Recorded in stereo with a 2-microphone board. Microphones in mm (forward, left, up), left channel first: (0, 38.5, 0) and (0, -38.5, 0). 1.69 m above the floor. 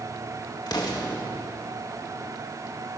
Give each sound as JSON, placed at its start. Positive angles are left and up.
{"t": 0.7, "sound": "an explosion", "side_deg": 60, "distance_m": 2.5}